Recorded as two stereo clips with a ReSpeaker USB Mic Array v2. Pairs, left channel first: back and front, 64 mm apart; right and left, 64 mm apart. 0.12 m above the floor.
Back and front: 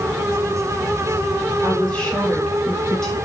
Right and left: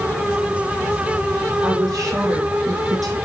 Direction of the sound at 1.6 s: 120° left.